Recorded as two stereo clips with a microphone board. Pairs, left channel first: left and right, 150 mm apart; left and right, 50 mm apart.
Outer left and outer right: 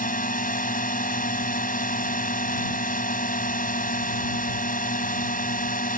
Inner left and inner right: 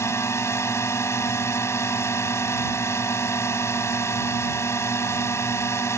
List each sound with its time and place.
0.0 s a drone: 70° left (ahead or behind)